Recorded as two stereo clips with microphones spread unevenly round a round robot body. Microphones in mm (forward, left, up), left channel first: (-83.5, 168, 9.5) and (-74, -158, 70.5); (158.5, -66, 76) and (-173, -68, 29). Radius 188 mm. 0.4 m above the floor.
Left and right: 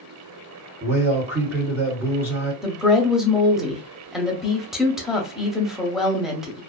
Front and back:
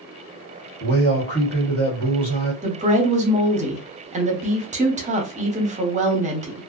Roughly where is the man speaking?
Ahead right.